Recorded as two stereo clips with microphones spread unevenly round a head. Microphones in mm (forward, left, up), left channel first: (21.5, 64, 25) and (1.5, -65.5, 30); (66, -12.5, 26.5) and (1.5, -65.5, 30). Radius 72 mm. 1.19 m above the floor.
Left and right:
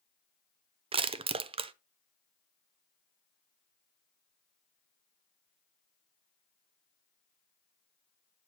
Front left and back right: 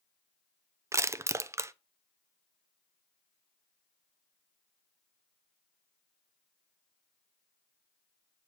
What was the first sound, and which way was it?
Crushing, 105° right.